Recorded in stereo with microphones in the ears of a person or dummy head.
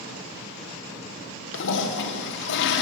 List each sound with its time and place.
1.5 s a toilet flushing: 70° left (ahead or behind), 1.7 m